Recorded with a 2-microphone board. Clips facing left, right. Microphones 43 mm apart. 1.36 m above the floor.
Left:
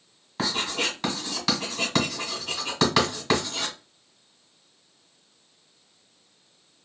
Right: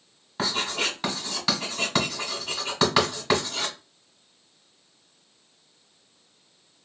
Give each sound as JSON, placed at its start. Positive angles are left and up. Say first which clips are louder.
{"t": 0.4, "sound": "writing", "louder": "even", "side_deg": -5, "distance_m": 1.7}